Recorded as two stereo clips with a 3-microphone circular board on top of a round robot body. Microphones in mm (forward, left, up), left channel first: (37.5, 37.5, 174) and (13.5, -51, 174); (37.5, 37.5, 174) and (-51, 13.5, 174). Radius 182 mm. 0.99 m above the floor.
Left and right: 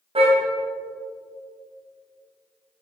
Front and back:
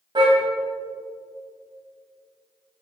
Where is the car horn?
120° right, 3 m.